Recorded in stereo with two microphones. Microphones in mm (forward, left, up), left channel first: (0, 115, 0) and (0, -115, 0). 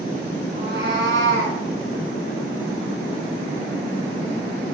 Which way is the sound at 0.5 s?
50° right (ahead or behind).